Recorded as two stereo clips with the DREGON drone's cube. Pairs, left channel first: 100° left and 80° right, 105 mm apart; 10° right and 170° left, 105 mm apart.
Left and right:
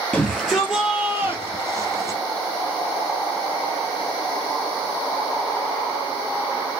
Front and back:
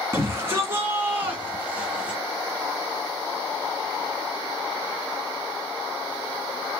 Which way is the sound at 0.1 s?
175° left.